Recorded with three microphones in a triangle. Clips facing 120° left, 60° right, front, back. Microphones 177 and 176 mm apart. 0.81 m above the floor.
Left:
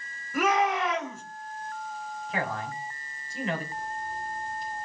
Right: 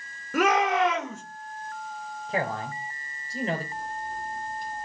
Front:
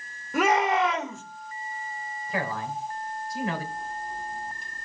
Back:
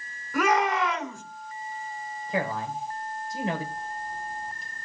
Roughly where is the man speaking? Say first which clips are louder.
Right 3 dB, back 2 dB; behind right.